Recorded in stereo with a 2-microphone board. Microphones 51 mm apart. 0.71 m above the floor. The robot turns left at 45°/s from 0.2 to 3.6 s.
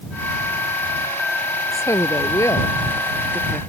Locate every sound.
1.7 s a woman speaking: 105° left; by 3.6 s 20° left